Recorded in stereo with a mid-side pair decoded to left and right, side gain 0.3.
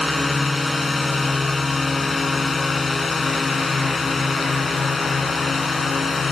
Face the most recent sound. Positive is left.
turn(degrees=60)